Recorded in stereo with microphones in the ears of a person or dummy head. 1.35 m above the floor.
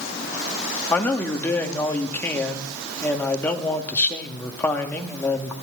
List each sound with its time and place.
0.9 s a man speaking: 10° left (ahead or behind), 1.9 m